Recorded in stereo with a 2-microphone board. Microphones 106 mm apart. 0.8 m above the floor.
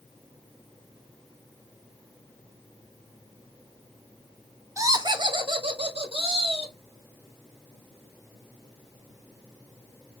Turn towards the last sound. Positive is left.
turn(degrees=-70)  # may be behind; listen again after turning